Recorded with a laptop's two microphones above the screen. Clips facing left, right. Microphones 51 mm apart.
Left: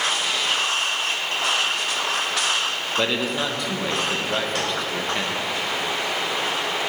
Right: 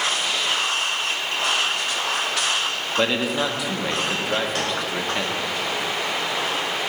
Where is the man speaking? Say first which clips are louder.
Right 2 dB; 5° right (ahead or behind), 0.8 m.